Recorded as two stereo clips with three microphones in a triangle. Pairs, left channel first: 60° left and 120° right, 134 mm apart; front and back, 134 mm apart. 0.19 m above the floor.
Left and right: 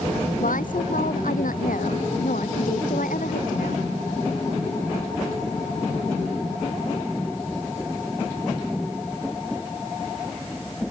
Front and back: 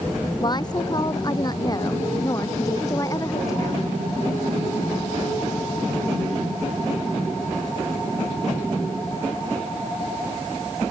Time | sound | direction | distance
0.4 | a woman speaking | 60° left | ?